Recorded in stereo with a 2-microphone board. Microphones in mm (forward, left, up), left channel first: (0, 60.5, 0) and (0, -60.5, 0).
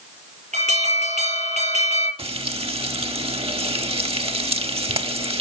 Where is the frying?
55° right (ahead or behind), 1.1 m.